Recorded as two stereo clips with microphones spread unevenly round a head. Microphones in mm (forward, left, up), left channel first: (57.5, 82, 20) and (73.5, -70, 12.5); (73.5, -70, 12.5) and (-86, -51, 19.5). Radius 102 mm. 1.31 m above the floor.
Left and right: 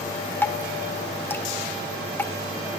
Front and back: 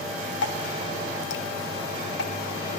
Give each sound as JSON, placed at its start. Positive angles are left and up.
{"t": 0.4, "sound": "dripping", "azimuth_deg": 20, "distance_m": 1.9}